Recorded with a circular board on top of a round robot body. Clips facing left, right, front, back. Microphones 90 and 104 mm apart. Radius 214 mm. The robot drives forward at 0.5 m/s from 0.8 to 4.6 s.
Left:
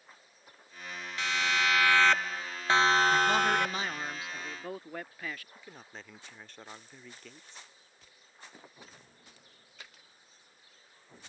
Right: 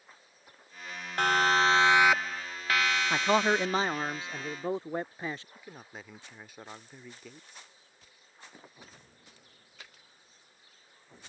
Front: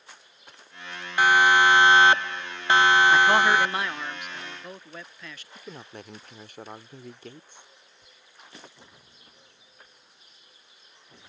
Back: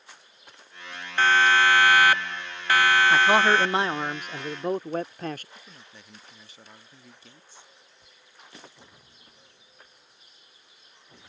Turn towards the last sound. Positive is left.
turn(degrees=-10)